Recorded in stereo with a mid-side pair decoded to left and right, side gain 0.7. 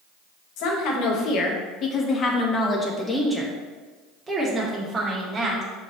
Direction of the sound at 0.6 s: 65° left.